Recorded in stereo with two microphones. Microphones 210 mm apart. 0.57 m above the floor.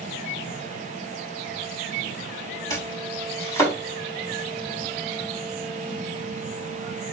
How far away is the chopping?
About 5 m.